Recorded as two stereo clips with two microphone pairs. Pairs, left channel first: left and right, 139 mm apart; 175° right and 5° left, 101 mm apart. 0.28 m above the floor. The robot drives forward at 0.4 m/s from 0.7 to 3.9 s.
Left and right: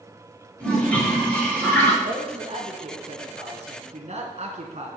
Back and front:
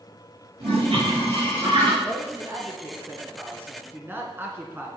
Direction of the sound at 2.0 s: 45° right.